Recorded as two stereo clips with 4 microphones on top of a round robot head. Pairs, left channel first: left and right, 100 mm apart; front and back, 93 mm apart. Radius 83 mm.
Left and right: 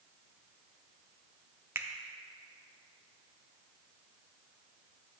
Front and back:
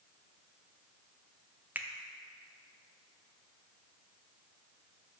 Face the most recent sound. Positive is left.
turn(degrees=-130)